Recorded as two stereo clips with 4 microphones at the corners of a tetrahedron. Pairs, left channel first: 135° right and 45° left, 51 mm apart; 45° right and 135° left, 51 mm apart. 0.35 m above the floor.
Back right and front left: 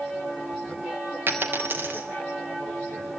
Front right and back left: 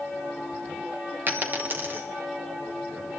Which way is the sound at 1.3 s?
90° left.